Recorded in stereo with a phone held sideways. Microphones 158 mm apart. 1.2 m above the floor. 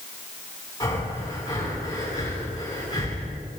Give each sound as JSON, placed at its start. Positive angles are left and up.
{"t": 0.8, "sound": "breathing", "side_deg": 25, "distance_m": 7.0}